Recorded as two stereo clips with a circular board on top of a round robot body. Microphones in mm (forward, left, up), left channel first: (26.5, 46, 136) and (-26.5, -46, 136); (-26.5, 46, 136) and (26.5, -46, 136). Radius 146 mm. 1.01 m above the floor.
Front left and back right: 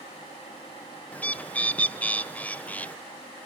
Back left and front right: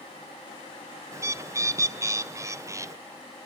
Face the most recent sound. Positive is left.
turn(degrees=-10)